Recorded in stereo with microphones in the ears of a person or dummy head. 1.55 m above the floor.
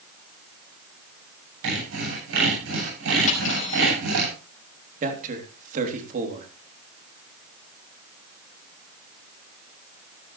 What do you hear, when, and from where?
1.6 s sawing: 75° right (ahead or behind), 8.5 m
3.3 s cutlery clinking: 35° left (ahead or behind), 5 m
5.0 s a man speaking: 45° right (ahead or behind), 3.5 m